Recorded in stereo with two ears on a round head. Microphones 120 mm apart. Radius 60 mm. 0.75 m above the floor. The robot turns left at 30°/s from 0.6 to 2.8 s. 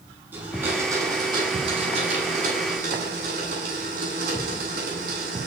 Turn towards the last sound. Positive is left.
turn(degrees=-80)